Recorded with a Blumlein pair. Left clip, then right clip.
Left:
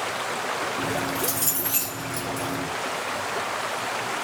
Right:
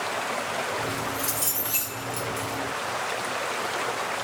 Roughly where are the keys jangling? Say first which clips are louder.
Left 2 dB; ahead.